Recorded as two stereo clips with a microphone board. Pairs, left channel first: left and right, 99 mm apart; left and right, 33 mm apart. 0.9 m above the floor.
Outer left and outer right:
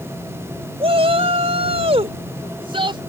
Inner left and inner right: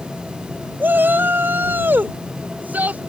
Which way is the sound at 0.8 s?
65° right (ahead or behind).